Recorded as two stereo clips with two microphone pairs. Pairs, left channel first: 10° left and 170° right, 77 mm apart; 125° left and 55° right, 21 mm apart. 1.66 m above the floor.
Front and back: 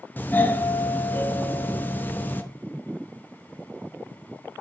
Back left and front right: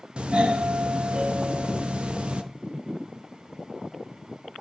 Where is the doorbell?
55° right, 0.6 m.